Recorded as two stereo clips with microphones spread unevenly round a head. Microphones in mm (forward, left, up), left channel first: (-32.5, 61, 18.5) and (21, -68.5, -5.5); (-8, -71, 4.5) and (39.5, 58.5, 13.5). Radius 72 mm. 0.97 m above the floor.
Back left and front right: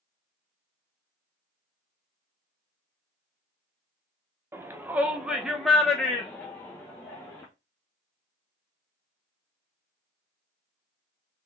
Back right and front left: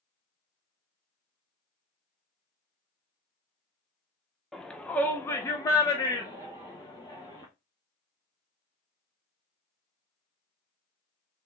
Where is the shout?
30° right, 0.9 m; by 7.5 s 165° right, 1.6 m.